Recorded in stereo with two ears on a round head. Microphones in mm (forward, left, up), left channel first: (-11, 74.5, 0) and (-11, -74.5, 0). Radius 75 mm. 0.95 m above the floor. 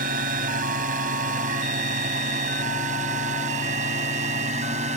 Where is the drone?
50° right (ahead or behind); by 5.0 s 40° right (ahead or behind).